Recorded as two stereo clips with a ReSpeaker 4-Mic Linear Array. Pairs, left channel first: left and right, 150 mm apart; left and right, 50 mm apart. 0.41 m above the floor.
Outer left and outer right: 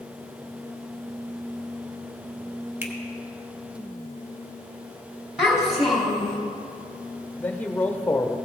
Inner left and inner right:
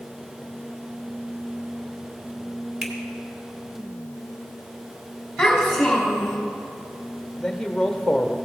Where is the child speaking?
Centre (ahead or behind), 1.9 m.